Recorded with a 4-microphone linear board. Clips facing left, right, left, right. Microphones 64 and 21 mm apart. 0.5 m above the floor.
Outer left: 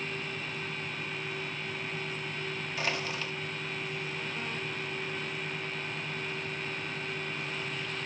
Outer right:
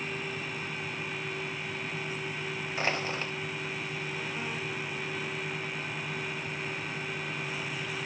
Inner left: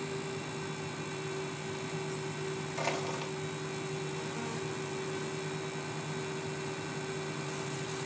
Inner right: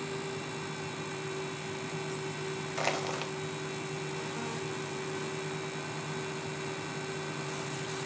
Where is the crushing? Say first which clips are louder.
Outer right 3 dB, inner right 3 dB; 35° right (ahead or behind), 1.2 m.